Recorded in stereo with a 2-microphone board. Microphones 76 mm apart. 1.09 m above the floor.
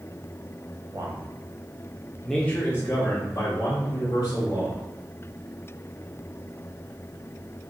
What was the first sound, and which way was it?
A man speaking, 55° right (ahead or behind).